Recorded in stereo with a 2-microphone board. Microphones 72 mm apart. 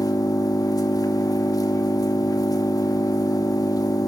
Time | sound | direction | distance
0.0 | an engine running | 55° left (ahead or behind) | 2.5 m